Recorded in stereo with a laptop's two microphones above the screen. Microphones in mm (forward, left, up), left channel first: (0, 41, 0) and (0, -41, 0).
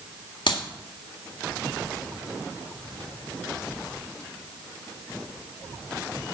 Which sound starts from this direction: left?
A clap, at 0.5 s.